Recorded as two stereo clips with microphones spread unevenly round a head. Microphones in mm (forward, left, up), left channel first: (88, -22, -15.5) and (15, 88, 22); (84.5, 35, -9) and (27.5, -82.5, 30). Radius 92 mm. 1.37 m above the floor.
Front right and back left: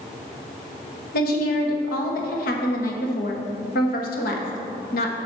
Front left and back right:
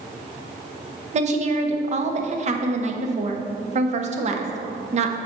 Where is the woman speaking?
80° right, 1.1 m.